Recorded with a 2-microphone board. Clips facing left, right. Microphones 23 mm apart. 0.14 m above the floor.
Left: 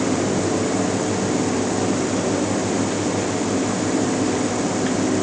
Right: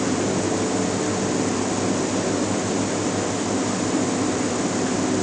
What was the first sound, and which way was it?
Only background noise.